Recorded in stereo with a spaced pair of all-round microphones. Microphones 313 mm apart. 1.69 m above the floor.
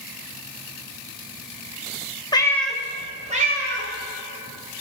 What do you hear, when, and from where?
2.3 s a cat meowing: 15° left (ahead or behind), 1.5 m; by 3.9 s 40° right (ahead or behind), 1.9 m